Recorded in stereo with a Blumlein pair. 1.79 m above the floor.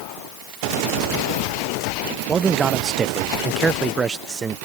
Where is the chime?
No chime in this recording.